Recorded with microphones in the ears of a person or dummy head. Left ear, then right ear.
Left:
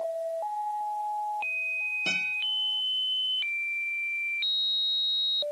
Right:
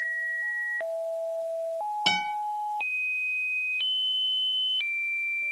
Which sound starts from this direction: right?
A guitar, at 2.1 s.